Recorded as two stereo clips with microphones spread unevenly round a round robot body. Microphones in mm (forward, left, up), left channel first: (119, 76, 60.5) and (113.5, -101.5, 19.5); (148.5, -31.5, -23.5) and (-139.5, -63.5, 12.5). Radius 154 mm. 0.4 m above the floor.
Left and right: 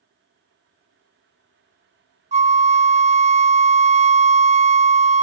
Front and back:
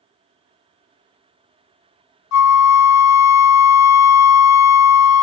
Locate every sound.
2.3 s a flute: 30° right, 0.5 m